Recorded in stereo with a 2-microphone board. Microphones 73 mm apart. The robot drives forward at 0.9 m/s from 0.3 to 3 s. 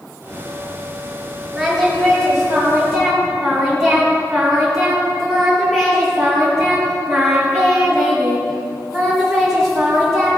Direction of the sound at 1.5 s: Centre (ahead or behind).